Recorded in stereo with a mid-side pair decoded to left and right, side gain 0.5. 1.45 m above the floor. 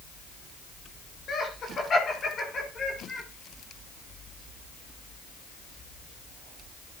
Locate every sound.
1.3 s laughter: 45° left, 5.5 m; by 3.3 s 30° left, 7 m